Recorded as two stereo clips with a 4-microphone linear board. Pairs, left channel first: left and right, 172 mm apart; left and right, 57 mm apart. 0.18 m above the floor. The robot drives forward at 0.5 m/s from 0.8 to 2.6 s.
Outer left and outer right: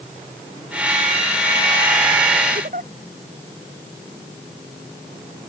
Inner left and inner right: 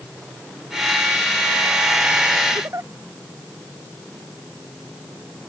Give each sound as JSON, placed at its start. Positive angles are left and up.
{"t": 2.5, "sound": "a giggle", "side_deg": -55}